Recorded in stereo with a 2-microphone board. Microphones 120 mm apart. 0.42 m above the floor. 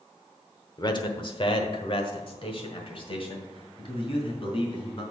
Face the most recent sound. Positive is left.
turn(degrees=50)  # may be behind; listen again after turning